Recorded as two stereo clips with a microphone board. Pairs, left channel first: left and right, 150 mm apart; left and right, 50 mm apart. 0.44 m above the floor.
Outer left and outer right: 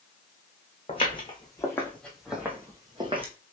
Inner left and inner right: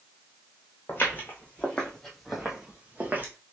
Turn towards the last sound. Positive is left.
turn(degrees=-40)  # may be behind; listen again after turning